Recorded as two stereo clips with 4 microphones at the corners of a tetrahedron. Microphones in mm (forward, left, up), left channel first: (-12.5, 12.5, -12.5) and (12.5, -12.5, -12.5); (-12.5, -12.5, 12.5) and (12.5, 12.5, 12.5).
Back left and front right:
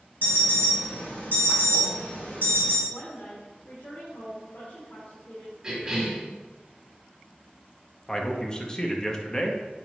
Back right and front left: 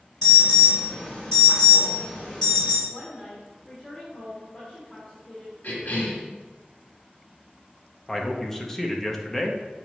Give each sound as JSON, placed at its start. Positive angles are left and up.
{"t": 0.2, "sound": "an alarm", "azimuth_deg": 160, "distance_m": 2.5}
{"t": 2.9, "sound": "a woman speaking", "azimuth_deg": 155, "distance_m": 1.8}
{"t": 5.6, "sound": "a cough", "azimuth_deg": -110, "distance_m": 1.8}
{"t": 8.1, "sound": "a man speaking", "azimuth_deg": 160, "distance_m": 0.7}